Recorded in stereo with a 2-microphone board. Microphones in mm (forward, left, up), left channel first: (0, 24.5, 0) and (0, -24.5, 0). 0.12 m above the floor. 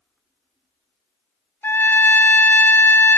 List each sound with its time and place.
1.6 s a trumpet: 50° left (ahead or behind), 0.6 m